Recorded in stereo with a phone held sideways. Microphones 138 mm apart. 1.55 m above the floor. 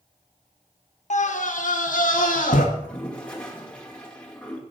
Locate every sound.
1.1 s a scream: 60° left (ahead or behind), 1.3 m; by 2.6 s 75° left (ahead or behind), 1.7 m
2.8 s a toilet flushing: 10° left (ahead or behind), 1.9 m